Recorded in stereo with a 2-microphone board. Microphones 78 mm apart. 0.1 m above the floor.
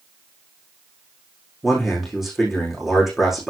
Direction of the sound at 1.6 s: 5° right (ahead or behind).